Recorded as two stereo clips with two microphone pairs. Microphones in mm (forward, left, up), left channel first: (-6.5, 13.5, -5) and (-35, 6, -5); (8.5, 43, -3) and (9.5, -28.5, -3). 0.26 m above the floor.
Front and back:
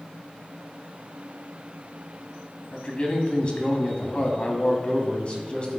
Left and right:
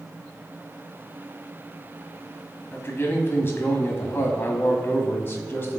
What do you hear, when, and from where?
2.7 s a man speaking: 50° left, 1.5 m